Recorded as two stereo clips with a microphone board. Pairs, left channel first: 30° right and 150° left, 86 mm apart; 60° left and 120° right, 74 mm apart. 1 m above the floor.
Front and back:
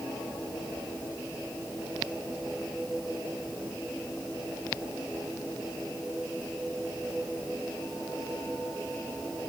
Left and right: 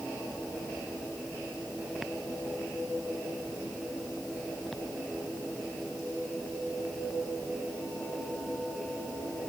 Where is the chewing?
I don't hear chewing.